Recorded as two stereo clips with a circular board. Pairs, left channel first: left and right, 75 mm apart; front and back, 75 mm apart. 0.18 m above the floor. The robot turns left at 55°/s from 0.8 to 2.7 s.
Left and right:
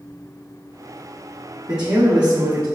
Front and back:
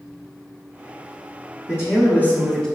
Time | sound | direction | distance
1.7 | a man speaking | 10° right | 1.5 m